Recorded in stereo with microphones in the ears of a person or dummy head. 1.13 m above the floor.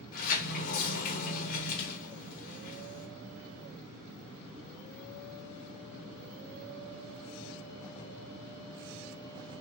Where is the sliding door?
45° left (ahead or behind), 0.8 m.